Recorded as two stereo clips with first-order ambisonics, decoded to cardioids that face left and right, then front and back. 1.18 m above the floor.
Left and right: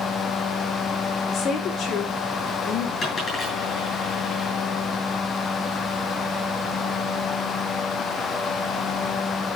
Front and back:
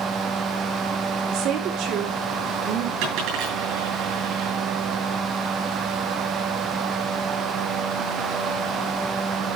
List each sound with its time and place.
1.3 s a woman speaking: 145° left, 3 m
3.0 s a dropped coin: 155° left, 9 m